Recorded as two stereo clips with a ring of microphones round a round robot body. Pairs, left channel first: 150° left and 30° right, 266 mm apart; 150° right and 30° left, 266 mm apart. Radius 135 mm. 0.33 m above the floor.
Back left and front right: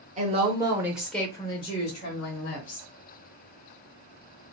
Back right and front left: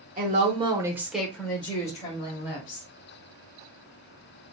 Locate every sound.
0.2 s a woman speaking: 5° left, 1.1 m; by 2.9 s straight behind, 1.4 m